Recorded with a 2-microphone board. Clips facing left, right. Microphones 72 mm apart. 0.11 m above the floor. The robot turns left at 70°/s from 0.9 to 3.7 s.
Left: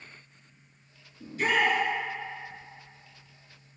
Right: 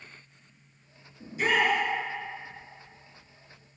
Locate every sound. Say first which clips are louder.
1.2 s a shout: even; 15° right (ahead or behind), 1.4 m; by 1.8 s 25° right (ahead or behind), 1.4 m